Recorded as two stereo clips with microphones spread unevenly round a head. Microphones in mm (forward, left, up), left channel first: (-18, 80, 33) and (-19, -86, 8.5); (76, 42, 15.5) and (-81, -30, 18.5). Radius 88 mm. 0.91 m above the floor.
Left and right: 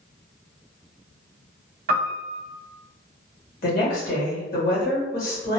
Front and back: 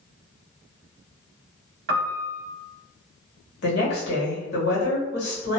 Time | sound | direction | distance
1.9 | a piano | 125° right | 0.9 m
3.6 | a woman speaking | 50° left | 1.5 m